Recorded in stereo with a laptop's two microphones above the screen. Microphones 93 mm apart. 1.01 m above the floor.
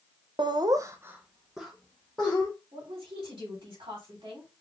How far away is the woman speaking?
About 2.5 m.